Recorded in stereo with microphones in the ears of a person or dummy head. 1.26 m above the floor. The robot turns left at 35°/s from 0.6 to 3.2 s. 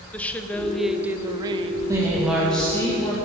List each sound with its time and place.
0.1 s a woman speaking: 5° left, 0.6 m; by 1.8 s 35° right, 0.6 m
1.9 s a woman speaking: 165° right, 1.2 m; by 3.1 s 150° left, 1.2 m